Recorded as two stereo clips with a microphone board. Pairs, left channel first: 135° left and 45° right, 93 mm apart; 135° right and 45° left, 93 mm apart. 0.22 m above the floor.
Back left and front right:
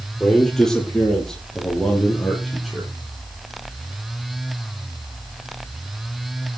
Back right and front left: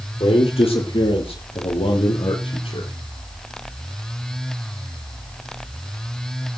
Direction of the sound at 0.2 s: 140° right.